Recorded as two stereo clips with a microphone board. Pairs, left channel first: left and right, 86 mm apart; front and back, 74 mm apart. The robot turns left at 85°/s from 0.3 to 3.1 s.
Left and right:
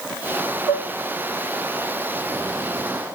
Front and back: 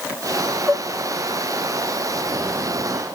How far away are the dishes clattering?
About 1.3 m.